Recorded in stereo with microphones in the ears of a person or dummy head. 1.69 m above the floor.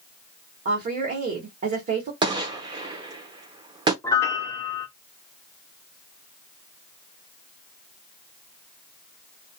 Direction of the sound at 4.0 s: 10° left (ahead or behind).